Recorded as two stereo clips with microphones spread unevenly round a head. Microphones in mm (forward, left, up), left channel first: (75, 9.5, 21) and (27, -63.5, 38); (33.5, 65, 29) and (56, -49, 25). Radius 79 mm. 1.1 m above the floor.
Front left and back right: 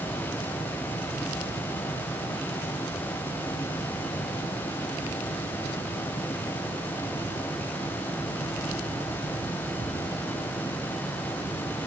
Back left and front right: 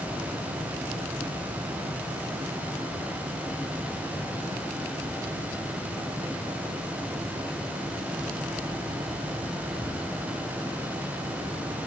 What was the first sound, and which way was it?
Only background noise.